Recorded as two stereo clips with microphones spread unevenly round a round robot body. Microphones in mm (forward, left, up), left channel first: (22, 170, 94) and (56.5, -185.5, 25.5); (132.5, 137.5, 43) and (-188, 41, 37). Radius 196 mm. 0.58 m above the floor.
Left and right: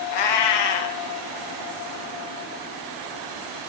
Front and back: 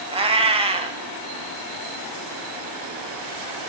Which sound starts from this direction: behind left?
A cat meowing, at 0.1 s.